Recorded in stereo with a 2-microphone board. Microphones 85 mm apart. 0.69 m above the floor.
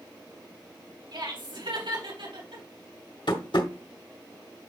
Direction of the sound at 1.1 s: 70° right (ahead or behind).